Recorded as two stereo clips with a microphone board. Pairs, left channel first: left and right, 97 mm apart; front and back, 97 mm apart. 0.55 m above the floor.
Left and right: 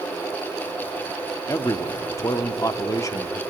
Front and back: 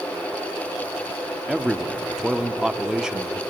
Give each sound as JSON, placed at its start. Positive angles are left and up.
{"t": 1.5, "sound": "a man speaking", "azimuth_deg": 100, "distance_m": 0.8}